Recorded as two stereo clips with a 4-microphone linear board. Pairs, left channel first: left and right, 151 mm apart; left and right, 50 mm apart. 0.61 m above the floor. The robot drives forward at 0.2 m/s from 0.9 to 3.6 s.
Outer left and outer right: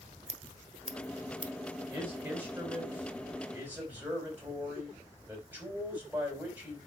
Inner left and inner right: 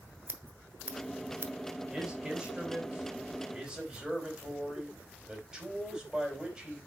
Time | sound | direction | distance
0.3 | scissors | 55° right (ahead or behind) | 1.1 m
1.9 | a man speaking | 15° right (ahead or behind) | 3.5 m